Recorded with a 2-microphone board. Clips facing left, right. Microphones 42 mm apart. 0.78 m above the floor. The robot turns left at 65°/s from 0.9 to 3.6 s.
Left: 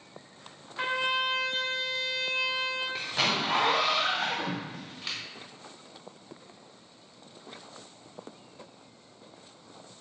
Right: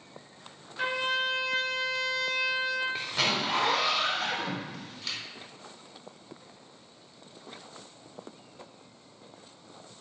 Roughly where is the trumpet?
Left.